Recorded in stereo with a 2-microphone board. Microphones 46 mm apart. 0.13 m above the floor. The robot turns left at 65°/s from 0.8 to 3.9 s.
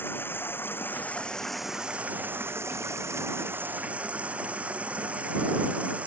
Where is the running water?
50° left; by 6.1 s 150° right.